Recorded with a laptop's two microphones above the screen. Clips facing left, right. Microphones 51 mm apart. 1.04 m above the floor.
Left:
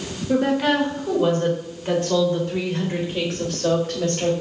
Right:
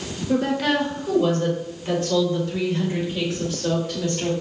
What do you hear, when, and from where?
0.3 s a woman speaking: 15° left (ahead or behind), 3 m; by 4.3 s 60° left (ahead or behind), 4 m